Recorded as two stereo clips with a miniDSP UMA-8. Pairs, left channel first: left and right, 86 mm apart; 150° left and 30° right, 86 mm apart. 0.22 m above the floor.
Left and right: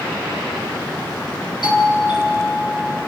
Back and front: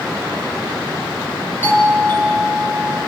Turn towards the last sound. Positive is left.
turn(degrees=85)